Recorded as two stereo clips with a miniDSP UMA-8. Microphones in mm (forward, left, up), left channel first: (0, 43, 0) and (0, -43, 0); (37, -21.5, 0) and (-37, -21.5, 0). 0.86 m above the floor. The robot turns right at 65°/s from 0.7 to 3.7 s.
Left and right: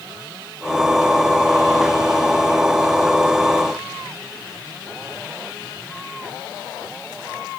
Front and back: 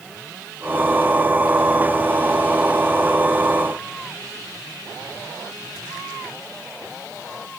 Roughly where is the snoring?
No snoring in this recording.